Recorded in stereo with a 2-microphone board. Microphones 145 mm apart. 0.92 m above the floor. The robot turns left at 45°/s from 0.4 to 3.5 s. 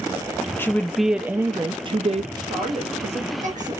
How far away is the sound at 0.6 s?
About 0.6 m.